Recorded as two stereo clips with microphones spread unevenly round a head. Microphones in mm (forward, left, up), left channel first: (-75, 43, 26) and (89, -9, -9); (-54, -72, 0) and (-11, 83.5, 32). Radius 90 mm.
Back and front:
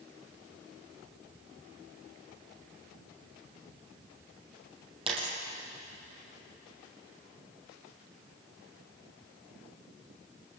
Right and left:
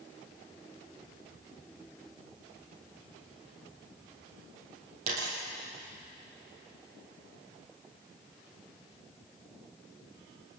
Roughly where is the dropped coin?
Ahead left.